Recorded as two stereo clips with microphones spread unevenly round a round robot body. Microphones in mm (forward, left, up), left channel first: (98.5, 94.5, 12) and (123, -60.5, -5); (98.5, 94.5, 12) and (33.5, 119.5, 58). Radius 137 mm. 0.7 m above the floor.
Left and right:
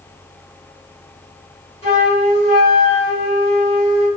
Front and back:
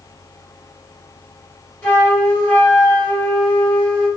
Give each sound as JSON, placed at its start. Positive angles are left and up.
{"t": 1.8, "sound": "a flute", "azimuth_deg": 45, "distance_m": 1.8}